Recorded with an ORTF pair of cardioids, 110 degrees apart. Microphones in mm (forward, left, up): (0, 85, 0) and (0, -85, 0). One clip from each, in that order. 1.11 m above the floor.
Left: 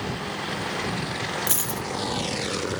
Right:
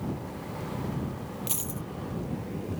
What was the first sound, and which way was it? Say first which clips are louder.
A dropped coin: left 8 dB; 40° left.